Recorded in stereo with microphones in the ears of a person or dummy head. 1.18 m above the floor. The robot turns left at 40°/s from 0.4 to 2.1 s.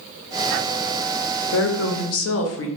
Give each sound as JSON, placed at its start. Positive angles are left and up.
{"t": 1.5, "sound": "a woman speaking", "side_deg": 55, "distance_m": 0.8}